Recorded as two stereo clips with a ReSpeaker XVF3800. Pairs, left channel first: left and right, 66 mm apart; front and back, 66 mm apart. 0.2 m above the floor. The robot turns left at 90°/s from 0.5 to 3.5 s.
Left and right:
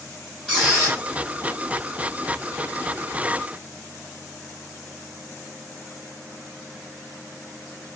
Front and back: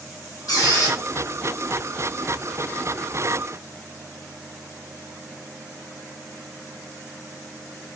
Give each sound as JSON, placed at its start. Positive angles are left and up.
{"t": 0.5, "sound": "a squeak", "azimuth_deg": 5, "distance_m": 1.4}